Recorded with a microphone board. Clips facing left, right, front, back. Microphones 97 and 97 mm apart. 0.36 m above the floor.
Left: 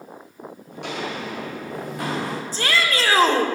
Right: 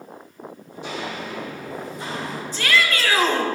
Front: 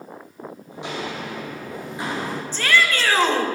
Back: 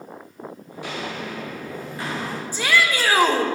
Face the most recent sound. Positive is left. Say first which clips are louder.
# right 2 dB, even
turn(degrees=110)